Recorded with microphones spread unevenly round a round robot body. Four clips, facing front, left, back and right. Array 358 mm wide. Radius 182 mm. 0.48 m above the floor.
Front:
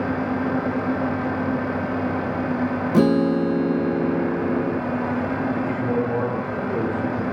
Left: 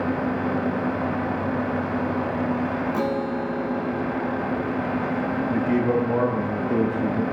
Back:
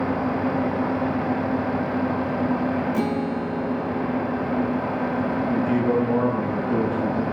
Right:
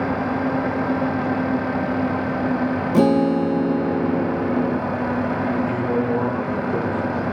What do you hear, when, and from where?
2.9 s a guitar: 45° right, 0.6 m
5.5 s a man speaking: 110° left, 9.5 m